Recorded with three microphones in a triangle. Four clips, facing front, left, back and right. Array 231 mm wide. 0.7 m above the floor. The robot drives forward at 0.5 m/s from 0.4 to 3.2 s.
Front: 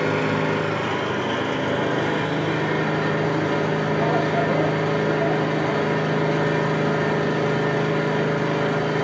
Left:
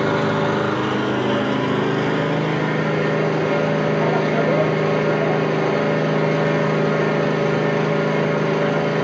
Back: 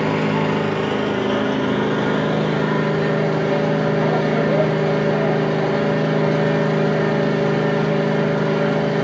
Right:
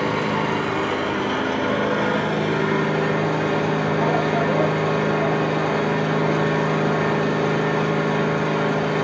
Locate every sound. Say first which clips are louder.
0.0 s an engine running: left 3 dB, back 3 dB; 145° left, 1.6 m; by 9.0 s 160° left, 3 m